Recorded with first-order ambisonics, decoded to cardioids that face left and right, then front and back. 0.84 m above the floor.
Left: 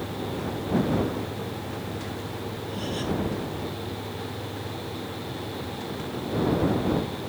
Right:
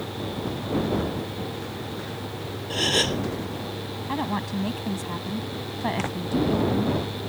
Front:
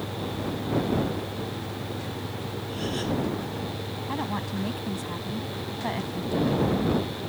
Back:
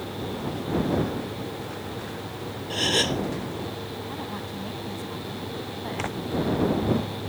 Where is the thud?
I don't hear a thud.